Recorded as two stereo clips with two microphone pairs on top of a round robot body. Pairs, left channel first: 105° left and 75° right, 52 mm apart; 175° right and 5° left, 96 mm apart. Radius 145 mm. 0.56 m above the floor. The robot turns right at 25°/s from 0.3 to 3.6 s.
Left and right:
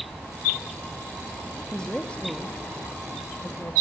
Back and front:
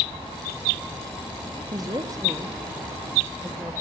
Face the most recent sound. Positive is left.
turn(degrees=75)